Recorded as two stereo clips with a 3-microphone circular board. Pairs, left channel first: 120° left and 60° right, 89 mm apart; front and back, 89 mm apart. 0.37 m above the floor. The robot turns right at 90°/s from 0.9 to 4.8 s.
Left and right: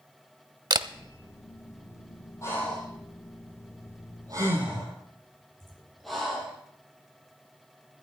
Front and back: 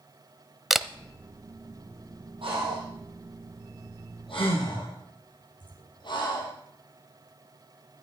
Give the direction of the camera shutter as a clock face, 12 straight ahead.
3 o'clock.